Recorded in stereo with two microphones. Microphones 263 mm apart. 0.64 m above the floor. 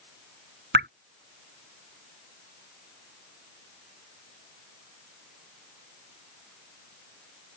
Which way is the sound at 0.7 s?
40° right (ahead or behind).